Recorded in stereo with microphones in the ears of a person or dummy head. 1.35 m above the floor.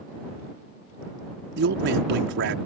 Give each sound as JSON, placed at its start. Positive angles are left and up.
{"t": 1.6, "sound": "a man speaking", "side_deg": -65}